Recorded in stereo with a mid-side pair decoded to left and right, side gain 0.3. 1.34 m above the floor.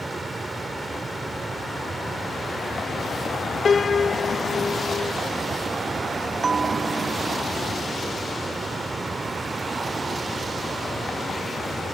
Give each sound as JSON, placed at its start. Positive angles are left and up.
{"t": 0.0, "sound": "a fan", "azimuth_deg": -45}
{"t": 3.6, "sound": "a piano", "azimuth_deg": 55}
{"t": 6.4, "sound": "a bell", "azimuth_deg": -55}